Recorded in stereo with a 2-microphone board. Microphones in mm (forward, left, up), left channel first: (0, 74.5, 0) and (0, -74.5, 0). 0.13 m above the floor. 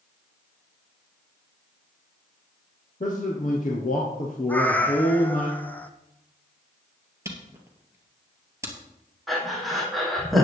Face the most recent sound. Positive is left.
turn(degrees=0)  # may be behind; listen again after turning